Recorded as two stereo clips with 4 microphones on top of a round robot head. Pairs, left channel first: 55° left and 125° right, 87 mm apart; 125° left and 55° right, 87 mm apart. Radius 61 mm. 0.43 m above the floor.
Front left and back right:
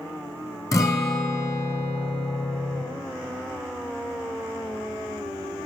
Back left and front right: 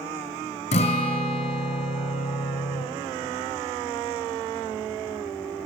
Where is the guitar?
115° left, 0.9 m.